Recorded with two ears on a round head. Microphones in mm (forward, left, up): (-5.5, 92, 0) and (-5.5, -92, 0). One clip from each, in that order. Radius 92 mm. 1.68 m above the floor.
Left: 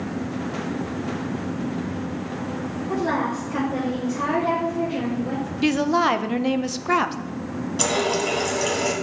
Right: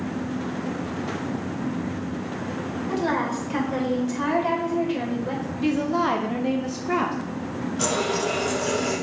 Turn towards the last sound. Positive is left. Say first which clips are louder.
# left 2 dB
turn(degrees=50)  # may be behind; listen again after turning